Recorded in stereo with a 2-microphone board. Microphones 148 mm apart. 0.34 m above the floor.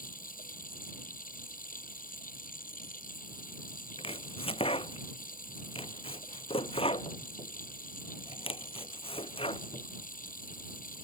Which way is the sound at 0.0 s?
70° left (ahead or behind).